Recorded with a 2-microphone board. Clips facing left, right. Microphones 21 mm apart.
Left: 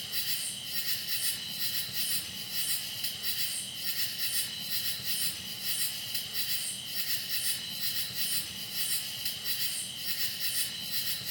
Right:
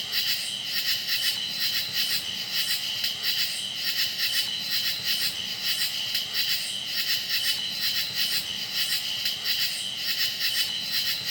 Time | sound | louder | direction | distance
0.0 | an insect | right 8 dB | 40° right (ahead or behind) | 0.9 m